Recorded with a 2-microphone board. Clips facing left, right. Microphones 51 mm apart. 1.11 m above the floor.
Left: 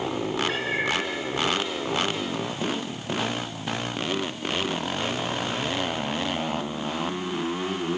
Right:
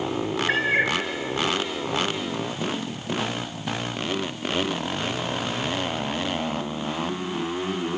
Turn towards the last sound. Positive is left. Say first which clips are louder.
# right 4 dB
turn(degrees=-45)  # may be behind; listen again after turning